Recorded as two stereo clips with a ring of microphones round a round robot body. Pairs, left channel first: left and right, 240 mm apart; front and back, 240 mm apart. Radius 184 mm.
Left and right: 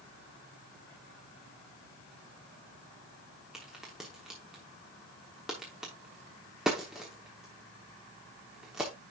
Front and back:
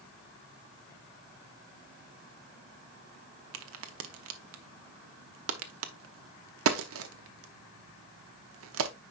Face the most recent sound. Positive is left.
turn(degrees=180)